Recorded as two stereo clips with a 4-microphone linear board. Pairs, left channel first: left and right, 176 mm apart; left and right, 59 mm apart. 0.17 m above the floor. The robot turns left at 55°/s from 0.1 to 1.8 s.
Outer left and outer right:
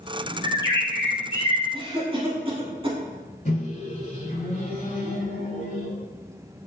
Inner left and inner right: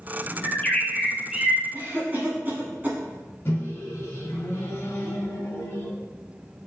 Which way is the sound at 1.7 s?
30° right (ahead or behind).